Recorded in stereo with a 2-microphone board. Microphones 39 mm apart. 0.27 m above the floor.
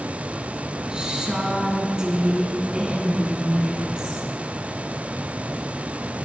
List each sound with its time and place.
0.9 s a woman speaking: 20° right (ahead or behind), 3 m